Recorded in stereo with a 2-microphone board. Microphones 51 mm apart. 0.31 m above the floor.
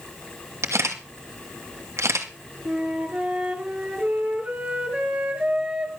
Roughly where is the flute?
Right.